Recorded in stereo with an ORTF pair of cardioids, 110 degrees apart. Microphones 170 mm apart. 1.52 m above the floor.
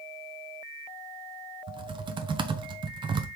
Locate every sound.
1.7 s typing on a keyboard: 30° right, 0.6 m